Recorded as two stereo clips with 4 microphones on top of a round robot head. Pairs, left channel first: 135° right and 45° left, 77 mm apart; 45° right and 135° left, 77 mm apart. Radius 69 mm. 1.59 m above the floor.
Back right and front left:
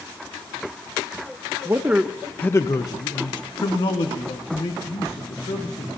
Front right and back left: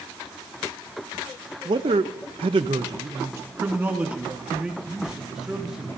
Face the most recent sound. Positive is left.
turn(degrees=-140)